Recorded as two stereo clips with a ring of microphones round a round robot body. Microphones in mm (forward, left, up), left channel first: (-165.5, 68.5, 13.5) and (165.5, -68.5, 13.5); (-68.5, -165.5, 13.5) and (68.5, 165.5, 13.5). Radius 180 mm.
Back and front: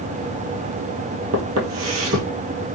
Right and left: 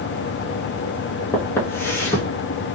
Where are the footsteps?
35° right, 1.1 m.